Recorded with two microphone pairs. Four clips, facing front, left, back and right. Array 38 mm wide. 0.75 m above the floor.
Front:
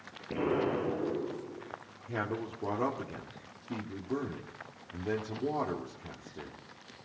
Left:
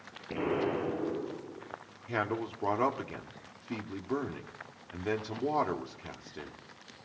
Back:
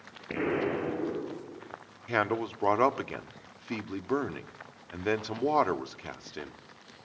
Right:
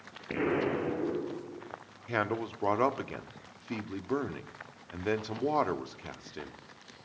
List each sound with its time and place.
0.3 s an explosion: 135° right, 6 m
2.1 s a man speaking: 170° right, 1.5 m